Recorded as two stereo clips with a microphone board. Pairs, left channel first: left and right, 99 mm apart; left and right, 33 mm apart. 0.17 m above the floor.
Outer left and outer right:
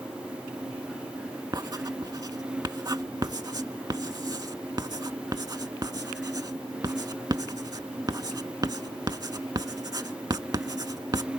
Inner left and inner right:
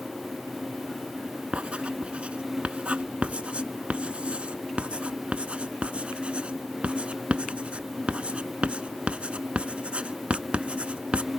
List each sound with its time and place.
1.5 s writing: 40° right (ahead or behind), 0.5 m